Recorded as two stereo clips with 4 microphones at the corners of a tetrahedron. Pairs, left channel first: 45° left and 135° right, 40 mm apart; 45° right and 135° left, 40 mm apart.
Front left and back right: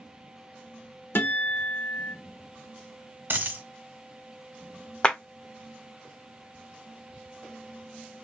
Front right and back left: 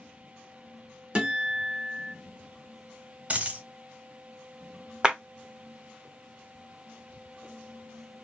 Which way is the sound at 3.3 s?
170° right.